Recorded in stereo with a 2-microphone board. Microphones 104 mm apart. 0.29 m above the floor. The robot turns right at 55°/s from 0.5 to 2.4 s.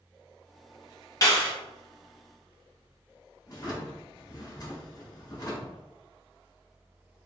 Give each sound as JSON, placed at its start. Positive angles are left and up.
{"t": 1.2, "sound": "a clap", "side_deg": 30, "distance_m": 1.0}
{"t": 3.5, "sound": "a drawer", "side_deg": 40, "distance_m": 1.1}